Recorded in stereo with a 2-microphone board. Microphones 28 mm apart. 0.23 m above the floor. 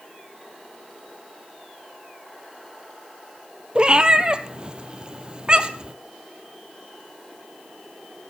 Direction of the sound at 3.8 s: 30° right (ahead or behind).